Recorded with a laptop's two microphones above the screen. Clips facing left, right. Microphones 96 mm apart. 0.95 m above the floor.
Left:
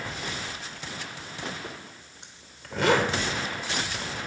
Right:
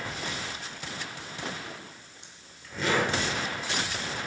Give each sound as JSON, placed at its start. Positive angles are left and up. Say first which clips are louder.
{"t": 1.6, "sound": "a zipper", "louder": "left 2 dB", "side_deg": 80, "distance_m": 1.8}